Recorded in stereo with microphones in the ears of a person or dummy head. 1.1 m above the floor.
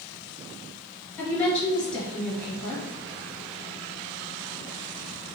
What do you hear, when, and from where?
1.2 s a woman speaking: 10° left (ahead or behind), 1.1 m